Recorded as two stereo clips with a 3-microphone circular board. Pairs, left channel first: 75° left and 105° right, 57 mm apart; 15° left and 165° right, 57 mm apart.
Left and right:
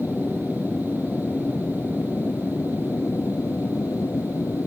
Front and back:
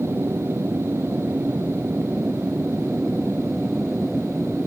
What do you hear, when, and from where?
0.0 s an aircraft: 135° left; by 4.7 s 105° left